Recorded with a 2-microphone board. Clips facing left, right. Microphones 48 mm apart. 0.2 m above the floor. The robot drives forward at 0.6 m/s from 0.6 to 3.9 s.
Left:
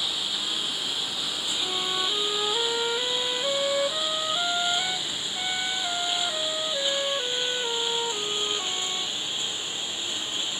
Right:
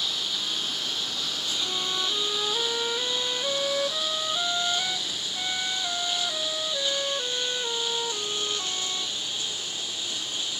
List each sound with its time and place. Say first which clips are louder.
0.0 s a lawn mower: even; 10° left (ahead or behind); by 10.6 s 20° left (ahead or behind)
1.6 s a flute: left 2 dB; 10° left (ahead or behind); by 9.2 s 5° left (ahead or behind)